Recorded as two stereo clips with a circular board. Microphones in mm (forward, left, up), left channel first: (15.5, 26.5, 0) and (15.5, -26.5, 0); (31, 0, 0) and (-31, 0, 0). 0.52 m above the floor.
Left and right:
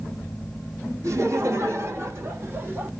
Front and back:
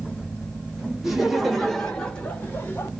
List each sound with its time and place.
1.0 s laughter: 95° right, 1.4 m; by 2.9 s 40° right, 1.1 m